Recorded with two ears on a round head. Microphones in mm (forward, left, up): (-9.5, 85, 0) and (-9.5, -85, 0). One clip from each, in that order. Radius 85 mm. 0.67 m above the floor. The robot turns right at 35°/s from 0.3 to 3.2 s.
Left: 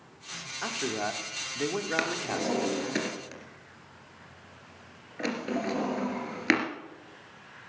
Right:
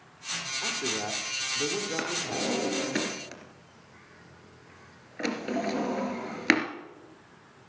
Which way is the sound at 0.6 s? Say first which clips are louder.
Left 3 dB; 60° left.